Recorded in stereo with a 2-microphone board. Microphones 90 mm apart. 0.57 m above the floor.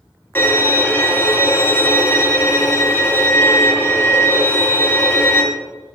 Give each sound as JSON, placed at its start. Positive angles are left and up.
{"t": 0.3, "sound": "a violin", "side_deg": 25, "distance_m": 1.5}